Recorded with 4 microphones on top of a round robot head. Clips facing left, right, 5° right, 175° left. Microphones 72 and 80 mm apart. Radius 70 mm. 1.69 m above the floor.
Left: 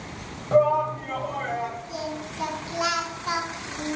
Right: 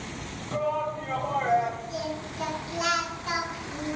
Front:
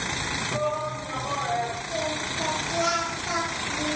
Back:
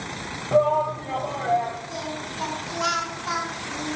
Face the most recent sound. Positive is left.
turn(degrees=160)